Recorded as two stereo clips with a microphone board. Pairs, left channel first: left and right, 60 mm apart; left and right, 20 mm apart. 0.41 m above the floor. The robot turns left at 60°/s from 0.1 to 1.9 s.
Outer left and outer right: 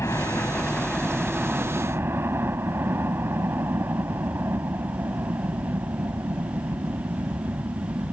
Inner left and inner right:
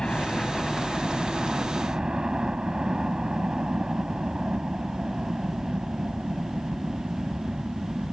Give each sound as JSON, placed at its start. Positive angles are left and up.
{"t": 0.0, "sound": "a helicopter", "azimuth_deg": 60}